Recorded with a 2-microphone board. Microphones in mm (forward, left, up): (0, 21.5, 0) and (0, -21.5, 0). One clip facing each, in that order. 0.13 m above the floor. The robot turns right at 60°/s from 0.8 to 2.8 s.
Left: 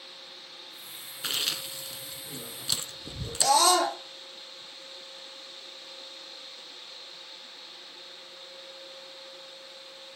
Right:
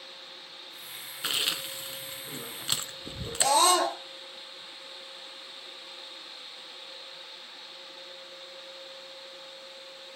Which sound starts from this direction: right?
A scream, at 3.4 s.